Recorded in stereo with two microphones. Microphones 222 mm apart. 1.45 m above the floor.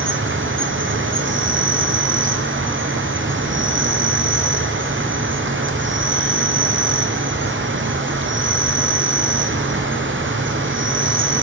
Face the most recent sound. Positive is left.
turn(degrees=-60)  # may be behind; listen again after turning